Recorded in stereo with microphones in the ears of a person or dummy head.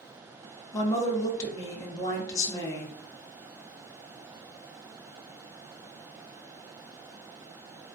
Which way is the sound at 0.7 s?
20° left (ahead or behind).